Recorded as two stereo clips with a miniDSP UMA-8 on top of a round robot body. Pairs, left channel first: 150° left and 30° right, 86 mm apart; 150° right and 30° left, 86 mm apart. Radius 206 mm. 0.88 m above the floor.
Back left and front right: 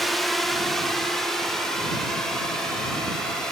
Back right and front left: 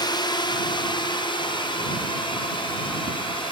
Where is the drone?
120° right; by 3.5 s 125° right.